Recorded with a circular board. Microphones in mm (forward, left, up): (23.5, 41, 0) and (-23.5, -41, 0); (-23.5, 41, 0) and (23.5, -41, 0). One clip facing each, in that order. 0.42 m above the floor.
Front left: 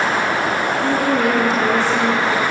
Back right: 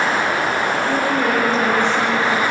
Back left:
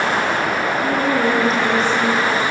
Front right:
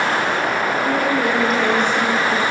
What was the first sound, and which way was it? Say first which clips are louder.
A woman speaking: front left 4 dB, back left 2 dB; 60° left.